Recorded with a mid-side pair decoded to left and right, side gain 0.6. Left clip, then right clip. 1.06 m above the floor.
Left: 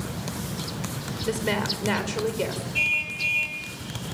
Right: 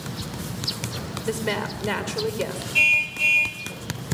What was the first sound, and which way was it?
A woman speaking, 5° right.